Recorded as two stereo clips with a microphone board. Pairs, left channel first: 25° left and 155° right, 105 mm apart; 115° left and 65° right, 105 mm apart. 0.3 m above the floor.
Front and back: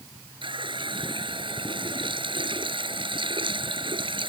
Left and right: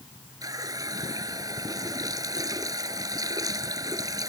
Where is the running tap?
120° right.